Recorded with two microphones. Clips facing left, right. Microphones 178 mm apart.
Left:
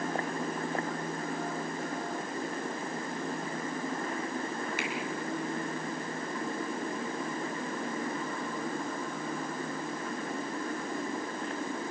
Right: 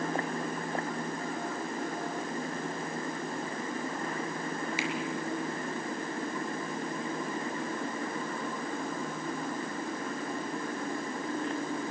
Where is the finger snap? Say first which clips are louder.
Right 2 dB; 55° left (ahead or behind), 5.5 m.